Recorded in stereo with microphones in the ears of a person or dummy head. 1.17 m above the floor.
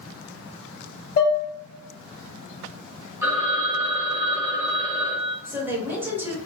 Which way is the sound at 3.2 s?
15° right (ahead or behind).